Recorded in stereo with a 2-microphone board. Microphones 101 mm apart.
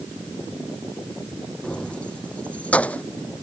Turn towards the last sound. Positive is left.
turn(degrees=15)  # may be behind; listen again after turning